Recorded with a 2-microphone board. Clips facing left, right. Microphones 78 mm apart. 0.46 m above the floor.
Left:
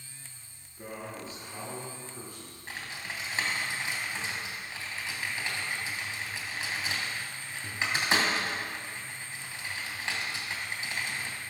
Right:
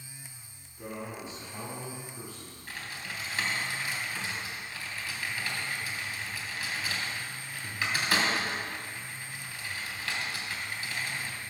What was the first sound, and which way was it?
A man speaking, 25° left (ahead or behind).